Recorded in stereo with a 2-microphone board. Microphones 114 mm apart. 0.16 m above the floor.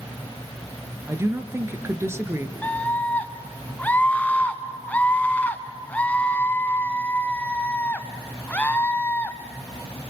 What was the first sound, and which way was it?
A woman speaking, 25° right (ahead or behind).